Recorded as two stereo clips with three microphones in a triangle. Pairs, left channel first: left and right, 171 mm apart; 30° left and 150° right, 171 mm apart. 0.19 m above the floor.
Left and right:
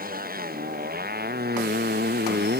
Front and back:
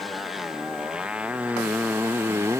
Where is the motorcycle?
60° right; by 2.6 s 75° right.